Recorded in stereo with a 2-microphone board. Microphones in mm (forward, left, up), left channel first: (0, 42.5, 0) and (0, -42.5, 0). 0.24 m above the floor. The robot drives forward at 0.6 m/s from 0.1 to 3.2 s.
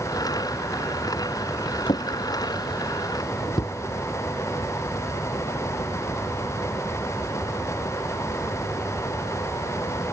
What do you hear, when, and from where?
1.9 s a drawer: 70° left (ahead or behind); by 3.8 s 55° left (ahead or behind)